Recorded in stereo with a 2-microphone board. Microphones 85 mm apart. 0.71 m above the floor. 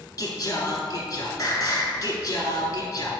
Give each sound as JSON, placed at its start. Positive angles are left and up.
{"t": 0.2, "sound": "singing", "side_deg": 45, "distance_m": 1.5}